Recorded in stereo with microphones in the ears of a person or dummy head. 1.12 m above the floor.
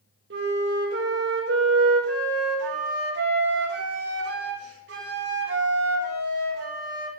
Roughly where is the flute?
Right.